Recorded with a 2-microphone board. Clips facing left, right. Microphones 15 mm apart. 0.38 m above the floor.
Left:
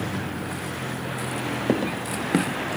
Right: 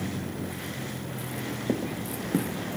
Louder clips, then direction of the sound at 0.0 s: Left 4 dB; 35° left (ahead or behind).